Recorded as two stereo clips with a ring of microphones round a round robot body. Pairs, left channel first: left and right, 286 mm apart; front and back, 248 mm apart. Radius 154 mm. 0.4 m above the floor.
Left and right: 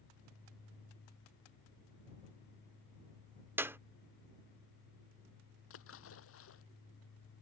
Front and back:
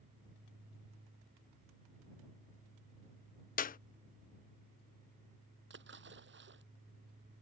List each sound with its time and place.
3.6 s a clap: 15° right
5.7 s a splash: 135° left